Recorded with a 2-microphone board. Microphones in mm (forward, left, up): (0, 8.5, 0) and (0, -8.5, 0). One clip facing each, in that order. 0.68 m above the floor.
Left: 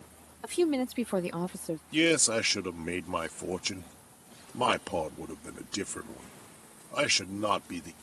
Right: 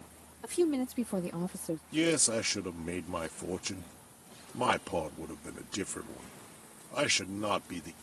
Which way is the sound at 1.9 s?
30° left (ahead or behind).